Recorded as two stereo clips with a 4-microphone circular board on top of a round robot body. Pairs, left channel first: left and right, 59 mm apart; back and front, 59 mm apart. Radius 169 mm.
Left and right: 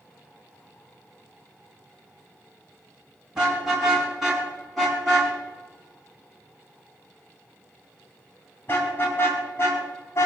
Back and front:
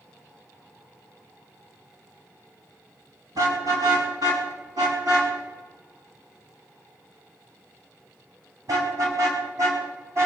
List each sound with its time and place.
3.4 s a car horn: 10° right, 6 m; by 10.3 s 40° left, 4.5 m